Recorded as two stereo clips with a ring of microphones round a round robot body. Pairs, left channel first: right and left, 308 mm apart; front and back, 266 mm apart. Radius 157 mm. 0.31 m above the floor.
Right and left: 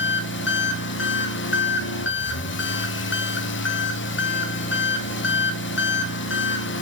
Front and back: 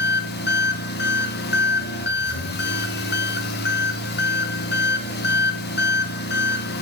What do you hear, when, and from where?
0.0 s an engine running: 45° right, 1.2 m